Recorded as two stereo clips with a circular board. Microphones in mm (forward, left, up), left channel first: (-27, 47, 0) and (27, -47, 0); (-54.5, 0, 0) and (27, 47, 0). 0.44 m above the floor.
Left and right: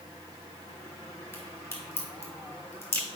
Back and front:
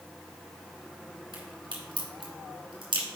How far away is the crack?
About 3.5 m.